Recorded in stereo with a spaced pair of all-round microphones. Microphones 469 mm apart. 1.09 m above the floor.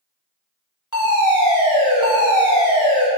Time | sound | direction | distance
0.9 | a fire alarm | 35° left (ahead or behind) | 1.8 m